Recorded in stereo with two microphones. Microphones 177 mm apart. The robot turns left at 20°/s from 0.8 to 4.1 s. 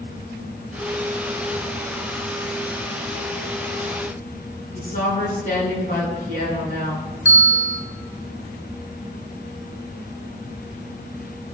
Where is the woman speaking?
55° left (ahead or behind), 4.5 m.